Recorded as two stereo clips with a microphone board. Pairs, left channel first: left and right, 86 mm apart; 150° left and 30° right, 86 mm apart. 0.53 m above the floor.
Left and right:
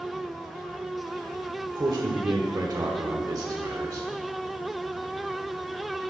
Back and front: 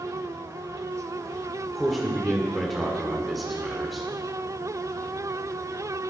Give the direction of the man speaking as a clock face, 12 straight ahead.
4 o'clock.